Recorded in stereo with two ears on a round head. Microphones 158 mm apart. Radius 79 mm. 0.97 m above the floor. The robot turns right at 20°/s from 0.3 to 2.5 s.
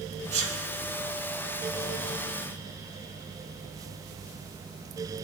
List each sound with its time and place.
0.3 s a sneeze: 40° right (ahead or behind), 1.6 m; by 0.6 s 35° right (ahead or behind), 1.6 m